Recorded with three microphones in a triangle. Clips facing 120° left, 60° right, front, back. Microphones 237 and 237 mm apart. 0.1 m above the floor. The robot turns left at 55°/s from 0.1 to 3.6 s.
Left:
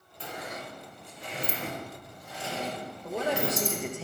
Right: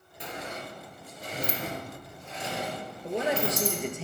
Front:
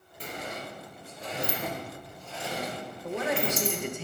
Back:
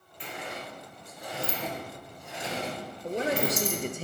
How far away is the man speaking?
About 1.7 m.